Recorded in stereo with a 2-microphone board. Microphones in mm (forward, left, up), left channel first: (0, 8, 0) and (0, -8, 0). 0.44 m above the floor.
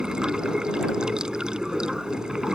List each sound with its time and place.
0.0 s running water: 70° right (ahead or behind)